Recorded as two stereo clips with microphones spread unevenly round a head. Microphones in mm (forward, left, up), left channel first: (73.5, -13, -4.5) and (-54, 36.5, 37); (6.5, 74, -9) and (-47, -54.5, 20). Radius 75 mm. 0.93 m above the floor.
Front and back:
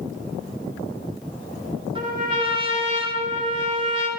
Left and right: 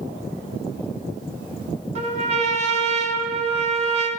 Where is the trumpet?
145° right, 1.0 m.